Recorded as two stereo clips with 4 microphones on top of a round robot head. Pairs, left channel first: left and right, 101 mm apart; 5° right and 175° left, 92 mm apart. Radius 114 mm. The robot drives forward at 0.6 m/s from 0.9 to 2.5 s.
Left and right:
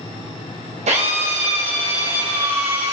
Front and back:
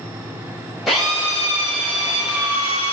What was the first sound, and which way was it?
A drill, 100° right.